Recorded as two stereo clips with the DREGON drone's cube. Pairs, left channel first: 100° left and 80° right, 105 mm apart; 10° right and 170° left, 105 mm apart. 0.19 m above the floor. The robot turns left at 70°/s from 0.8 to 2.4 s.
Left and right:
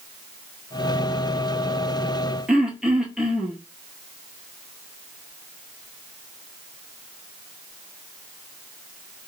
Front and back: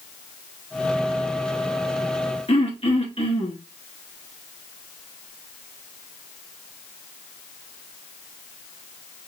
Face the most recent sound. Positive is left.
turn(degrees=5)